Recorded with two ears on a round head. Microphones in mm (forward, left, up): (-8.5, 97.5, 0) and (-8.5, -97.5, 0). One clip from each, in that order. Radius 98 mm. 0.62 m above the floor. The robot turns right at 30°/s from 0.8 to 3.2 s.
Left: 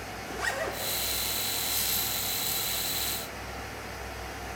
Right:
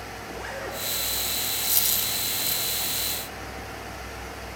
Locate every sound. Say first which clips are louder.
0.2 s a zipper: left 4 dB; 55° left (ahead or behind), 2 m
1.6 s a dropped coin: right 4 dB; 40° right (ahead or behind), 2.5 m; by 2.6 s 10° right (ahead or behind), 2.5 m